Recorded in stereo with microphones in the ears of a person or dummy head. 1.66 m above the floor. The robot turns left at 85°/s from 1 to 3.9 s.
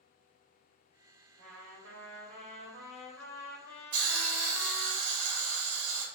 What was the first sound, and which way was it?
A trumpet, 45° right.